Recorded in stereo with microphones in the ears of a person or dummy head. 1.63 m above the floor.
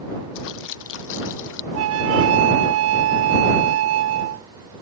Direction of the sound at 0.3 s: 65° left (ahead or behind).